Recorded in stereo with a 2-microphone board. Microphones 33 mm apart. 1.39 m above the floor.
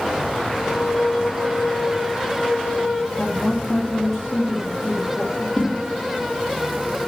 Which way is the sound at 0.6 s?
Centre (ahead or behind).